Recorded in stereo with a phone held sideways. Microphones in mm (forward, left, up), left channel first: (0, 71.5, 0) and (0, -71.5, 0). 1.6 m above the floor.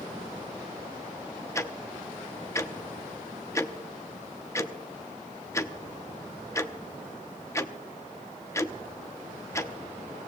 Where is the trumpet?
No trumpet in this recording.